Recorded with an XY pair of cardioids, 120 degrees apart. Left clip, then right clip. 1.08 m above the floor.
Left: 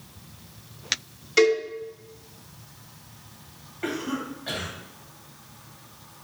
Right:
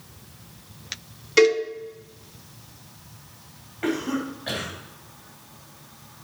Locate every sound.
1.4 s a cowbell: 15° right, 1.9 m
3.8 s a cough: 25° right, 2.5 m